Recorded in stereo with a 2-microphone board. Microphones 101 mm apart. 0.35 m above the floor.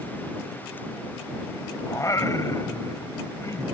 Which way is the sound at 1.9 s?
35° left (ahead or behind).